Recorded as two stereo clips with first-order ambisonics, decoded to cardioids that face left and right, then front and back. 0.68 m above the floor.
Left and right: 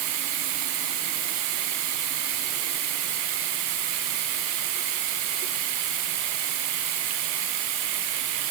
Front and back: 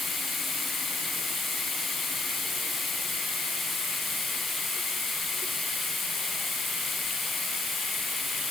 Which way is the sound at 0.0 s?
80° right.